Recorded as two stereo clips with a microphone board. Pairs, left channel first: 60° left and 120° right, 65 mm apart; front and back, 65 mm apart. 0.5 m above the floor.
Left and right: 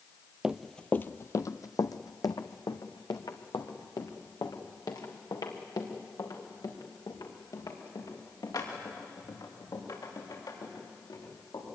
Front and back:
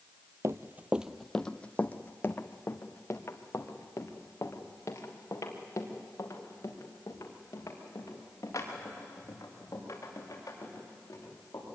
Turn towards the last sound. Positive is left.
turn(degrees=45)